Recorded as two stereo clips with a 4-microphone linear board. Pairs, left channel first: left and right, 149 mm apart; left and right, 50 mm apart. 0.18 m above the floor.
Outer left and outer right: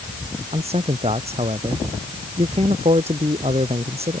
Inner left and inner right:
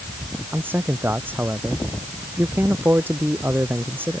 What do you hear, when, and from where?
0.5 s a man speaking: 40° right (ahead or behind)